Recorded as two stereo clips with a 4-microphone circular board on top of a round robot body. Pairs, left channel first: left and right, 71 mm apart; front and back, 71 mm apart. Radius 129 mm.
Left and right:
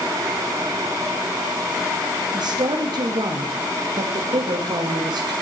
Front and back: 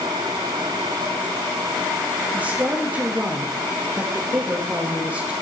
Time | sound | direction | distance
2.3 | a woman speaking | 110° right | 2.5 m